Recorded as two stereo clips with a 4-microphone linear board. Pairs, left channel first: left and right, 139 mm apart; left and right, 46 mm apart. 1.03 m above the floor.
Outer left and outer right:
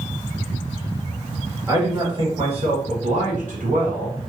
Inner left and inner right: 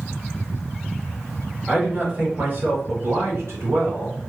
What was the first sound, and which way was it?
A man speaking, 25° right (ahead or behind).